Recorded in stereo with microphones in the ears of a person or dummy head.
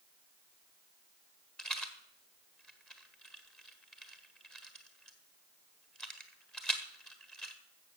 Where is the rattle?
5° left (ahead or behind), 1.4 m.